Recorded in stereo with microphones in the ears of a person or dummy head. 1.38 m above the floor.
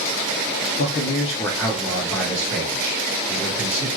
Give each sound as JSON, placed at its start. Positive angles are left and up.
{"t": 0.8, "sound": "a man speaking", "side_deg": 55, "distance_m": 0.6}